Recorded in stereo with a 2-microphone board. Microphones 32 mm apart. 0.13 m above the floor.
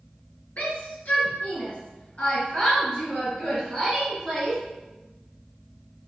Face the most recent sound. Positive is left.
turn(degrees=10)  # may be behind; listen again after turning